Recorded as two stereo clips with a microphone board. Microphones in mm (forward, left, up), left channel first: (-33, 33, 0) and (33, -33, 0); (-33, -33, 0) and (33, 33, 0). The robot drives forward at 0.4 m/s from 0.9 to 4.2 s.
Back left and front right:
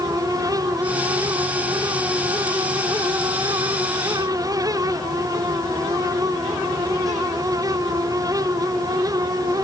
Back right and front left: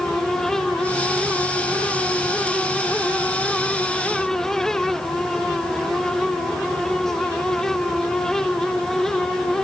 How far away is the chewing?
I don't hear chewing.